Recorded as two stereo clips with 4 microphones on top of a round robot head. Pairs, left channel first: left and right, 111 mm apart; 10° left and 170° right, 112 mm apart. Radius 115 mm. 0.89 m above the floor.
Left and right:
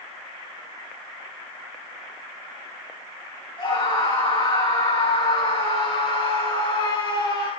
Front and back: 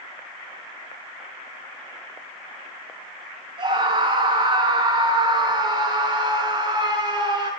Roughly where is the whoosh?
I don't hear a whoosh.